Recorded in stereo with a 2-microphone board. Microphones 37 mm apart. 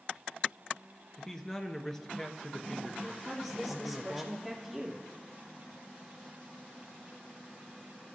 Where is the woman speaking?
Centre (ahead or behind), 3 m.